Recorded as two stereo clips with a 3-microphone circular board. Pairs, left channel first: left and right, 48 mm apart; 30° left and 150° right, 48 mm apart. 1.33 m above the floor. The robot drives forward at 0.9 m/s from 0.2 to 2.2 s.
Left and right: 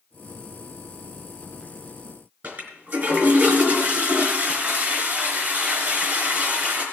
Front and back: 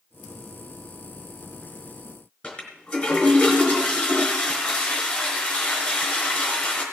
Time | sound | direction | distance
2.4 | a toilet flushing | 45° right | 4 m